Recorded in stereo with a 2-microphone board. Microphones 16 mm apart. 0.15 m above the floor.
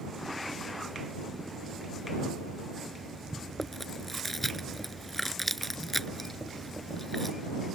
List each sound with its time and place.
3.6 s chewing: 10° left (ahead or behind)